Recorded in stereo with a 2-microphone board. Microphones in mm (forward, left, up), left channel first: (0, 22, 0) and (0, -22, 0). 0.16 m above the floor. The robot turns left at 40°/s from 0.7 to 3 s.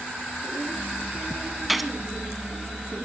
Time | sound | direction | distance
1.7 | a gunshot | 5° right (ahead or behind) | 1.6 m